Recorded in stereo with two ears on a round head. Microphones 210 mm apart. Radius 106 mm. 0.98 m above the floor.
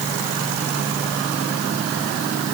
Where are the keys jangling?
I don't hear keys jangling.